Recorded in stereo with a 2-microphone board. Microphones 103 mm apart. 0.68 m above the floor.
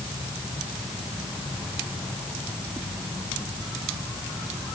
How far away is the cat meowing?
I don't hear a cat meowing.